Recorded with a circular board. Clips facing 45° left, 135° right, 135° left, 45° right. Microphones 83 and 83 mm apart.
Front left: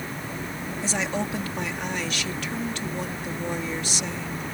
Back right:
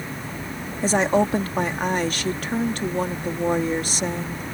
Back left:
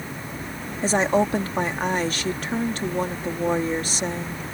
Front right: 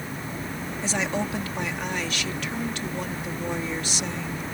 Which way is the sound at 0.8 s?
175° right.